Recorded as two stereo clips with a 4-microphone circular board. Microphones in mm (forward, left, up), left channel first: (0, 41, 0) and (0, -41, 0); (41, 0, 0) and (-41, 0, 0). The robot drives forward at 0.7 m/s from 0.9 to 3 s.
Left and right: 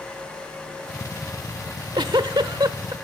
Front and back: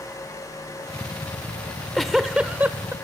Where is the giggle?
75° right, 1.1 m; by 2.9 s 120° right, 1.3 m.